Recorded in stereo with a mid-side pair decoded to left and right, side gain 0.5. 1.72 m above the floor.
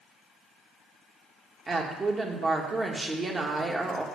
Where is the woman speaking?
30° right, 2 m.